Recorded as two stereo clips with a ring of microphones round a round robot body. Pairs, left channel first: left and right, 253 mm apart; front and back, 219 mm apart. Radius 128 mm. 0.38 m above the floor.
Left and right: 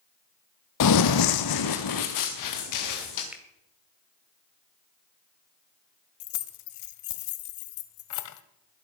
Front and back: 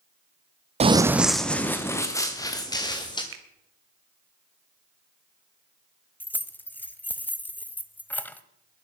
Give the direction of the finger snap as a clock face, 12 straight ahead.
6 o'clock.